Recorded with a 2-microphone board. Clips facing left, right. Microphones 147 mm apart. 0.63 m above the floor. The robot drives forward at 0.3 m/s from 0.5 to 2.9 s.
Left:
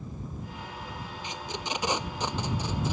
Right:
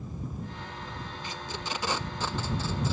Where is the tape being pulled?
20° left (ahead or behind).